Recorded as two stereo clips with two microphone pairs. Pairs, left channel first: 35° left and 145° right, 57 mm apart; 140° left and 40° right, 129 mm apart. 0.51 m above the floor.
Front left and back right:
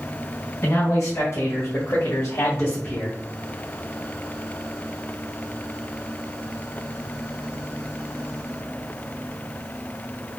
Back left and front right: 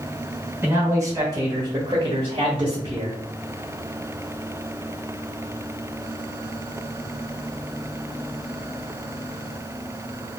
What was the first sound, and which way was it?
A man speaking, 30° left.